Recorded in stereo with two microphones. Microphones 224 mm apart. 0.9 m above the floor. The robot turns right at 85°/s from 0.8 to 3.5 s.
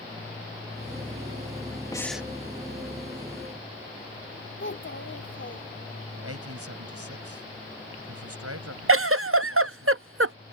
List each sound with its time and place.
1.9 s breathing: 160° left; by 2.3 s 165° right
4.6 s a child speaking: 55° left (ahead or behind)
6.2 s a man speaking: 80° right
8.9 s a giggle: 65° right (ahead or behind)